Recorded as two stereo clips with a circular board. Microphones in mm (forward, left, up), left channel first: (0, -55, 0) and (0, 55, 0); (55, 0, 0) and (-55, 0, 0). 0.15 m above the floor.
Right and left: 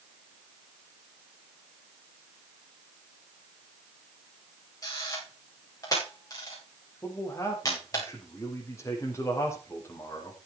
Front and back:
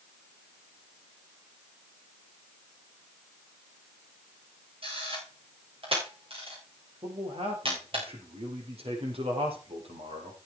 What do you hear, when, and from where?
4.8 s a camera shutter: 150° right, 8.5 m
7.0 s a man speaking: 155° right, 5 m